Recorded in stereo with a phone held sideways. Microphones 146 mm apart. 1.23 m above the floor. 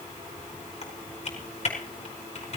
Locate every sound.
0.8 s typing on a keyboard: 45° left (ahead or behind), 5 m